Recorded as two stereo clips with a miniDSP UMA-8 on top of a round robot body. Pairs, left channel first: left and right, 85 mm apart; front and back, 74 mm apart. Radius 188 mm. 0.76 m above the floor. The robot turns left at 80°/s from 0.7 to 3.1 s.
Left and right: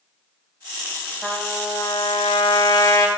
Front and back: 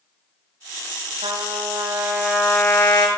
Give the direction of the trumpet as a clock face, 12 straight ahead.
6 o'clock.